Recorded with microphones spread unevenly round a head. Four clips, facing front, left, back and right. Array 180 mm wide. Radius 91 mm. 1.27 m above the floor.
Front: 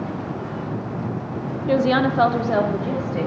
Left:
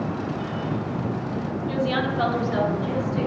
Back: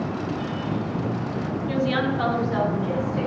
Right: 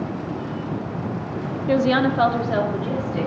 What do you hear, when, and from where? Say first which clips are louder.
1.7 s a woman speaking: right 7 dB, front 6 dB; 45° right, 0.9 m; by 3.3 s 15° right, 2.5 m